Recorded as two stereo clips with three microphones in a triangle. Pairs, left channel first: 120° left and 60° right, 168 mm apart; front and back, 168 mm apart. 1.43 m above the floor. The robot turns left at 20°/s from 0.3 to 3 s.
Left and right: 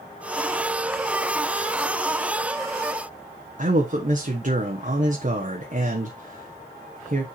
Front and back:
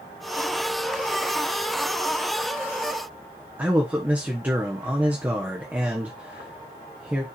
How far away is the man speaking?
About 1.2 m.